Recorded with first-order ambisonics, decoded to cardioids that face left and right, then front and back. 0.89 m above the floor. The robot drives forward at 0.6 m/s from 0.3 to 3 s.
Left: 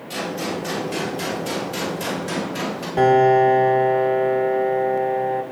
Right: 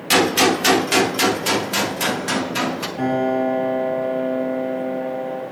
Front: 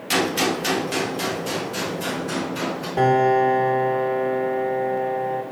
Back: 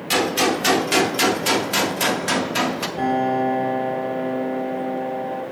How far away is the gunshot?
About 0.7 m.